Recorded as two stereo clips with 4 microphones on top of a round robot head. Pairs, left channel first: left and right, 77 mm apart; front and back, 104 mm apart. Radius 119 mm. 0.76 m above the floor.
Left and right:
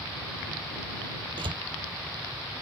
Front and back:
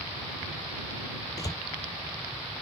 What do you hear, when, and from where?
1.4 s a door slam: 65° right